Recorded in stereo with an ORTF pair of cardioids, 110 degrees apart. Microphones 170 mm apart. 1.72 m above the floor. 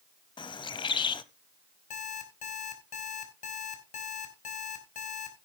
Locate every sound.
0.4 s a bird: 30° left, 0.9 m
1.9 s an alarm clock: 50° left, 3.5 m